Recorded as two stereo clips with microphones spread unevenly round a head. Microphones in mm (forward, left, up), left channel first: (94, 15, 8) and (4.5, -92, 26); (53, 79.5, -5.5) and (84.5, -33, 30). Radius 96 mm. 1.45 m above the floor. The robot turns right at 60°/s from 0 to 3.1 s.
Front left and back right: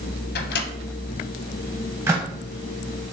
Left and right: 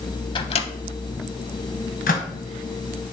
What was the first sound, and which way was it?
A microwave, 50° left.